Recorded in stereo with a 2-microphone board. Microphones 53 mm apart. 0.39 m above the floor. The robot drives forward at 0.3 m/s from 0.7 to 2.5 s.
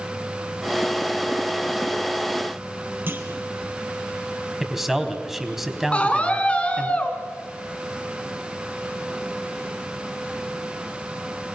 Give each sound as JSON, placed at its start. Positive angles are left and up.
{"t": 3.1, "sound": "a clunk", "side_deg": -40, "distance_m": 3.0}
{"t": 4.6, "sound": "a man speaking", "side_deg": -5, "distance_m": 3.5}
{"t": 5.9, "sound": "a scream", "side_deg": 25, "distance_m": 4.0}